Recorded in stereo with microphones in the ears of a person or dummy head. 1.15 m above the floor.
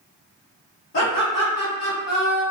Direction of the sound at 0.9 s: 75° left (ahead or behind).